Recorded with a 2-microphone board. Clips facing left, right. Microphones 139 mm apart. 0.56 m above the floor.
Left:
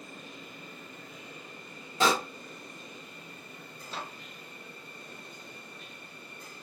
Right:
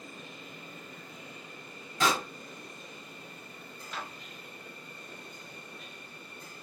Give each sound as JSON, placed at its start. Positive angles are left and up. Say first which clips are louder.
{"t": 2.0, "sound": "a pop", "louder": "left 2 dB", "side_deg": 30, "distance_m": 1.8}
{"t": 3.9, "sound": "a microwave", "louder": "left 1 dB", "side_deg": 30, "distance_m": 0.7}